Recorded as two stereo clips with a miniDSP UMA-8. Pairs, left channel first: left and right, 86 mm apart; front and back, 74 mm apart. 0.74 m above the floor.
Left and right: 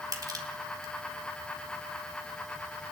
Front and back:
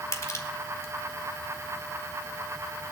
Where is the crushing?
45° right, 3 m.